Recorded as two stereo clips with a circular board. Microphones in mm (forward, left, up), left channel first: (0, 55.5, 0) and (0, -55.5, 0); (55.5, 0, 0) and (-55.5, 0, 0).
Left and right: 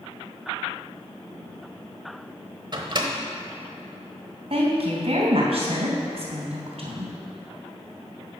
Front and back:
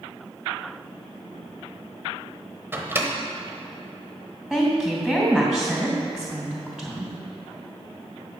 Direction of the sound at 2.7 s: 120° right.